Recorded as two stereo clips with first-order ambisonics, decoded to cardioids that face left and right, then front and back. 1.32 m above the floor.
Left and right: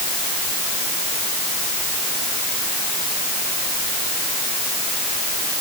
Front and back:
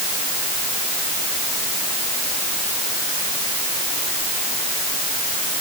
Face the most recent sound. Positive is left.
No sound to turn to.